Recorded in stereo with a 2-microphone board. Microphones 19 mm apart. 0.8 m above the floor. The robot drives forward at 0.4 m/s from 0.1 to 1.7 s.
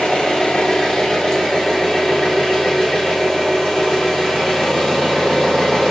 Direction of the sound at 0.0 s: 65° left (ahead or behind).